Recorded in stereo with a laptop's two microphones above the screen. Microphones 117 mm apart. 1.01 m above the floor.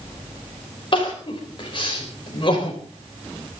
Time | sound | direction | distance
0.9 | crying | 45° left (ahead or behind) | 4 m